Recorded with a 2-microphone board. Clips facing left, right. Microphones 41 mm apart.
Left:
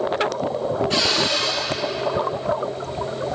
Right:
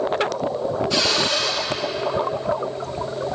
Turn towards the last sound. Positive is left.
turn(degrees=45)  # may be behind; listen again after turning